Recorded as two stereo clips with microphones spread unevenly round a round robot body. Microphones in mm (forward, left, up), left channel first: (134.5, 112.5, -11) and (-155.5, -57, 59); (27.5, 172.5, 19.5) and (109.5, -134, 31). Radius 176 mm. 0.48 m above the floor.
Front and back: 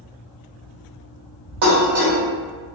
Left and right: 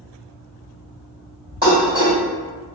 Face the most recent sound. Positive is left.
turn(degrees=-140)